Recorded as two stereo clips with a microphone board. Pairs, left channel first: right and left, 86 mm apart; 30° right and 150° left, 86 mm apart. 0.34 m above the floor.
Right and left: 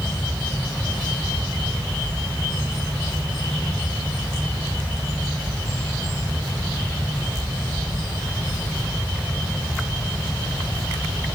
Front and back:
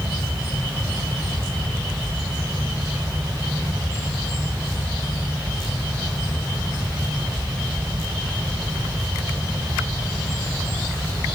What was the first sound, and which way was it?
Only background noise.